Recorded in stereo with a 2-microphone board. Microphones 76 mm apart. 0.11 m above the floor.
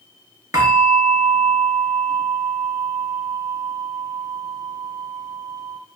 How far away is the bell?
About 0.8 m.